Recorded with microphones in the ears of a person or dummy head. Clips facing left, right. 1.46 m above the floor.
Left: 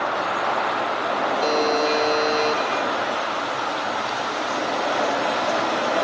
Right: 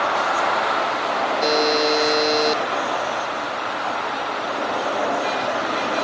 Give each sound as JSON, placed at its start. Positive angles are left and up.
{"t": 1.4, "sound": "a buzzer", "side_deg": -15}